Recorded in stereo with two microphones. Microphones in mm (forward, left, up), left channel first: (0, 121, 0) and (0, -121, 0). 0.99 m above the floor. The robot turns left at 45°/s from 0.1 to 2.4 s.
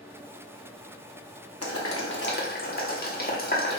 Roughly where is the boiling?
Left.